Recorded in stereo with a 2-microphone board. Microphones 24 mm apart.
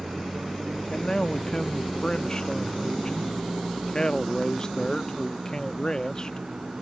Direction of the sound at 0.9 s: 30° left (ahead or behind).